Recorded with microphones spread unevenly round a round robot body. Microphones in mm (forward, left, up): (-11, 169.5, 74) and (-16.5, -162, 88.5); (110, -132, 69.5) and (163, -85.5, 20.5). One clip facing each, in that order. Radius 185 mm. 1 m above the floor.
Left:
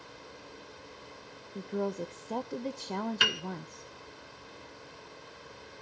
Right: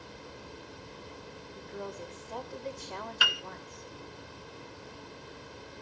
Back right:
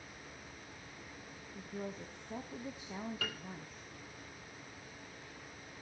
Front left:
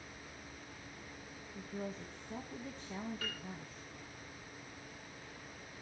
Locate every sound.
1.6 s a woman speaking: 110° left, 1.1 m
3.2 s a piano: 150° left, 0.6 m